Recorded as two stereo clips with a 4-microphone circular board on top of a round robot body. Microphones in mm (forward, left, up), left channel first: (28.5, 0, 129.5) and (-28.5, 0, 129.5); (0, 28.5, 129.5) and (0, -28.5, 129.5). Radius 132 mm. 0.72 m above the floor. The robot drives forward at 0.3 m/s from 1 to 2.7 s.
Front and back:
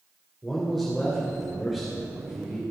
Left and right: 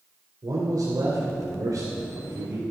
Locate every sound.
0.4 s a man speaking: 85° right, 3.5 m; by 2.6 s 95° right, 3.5 m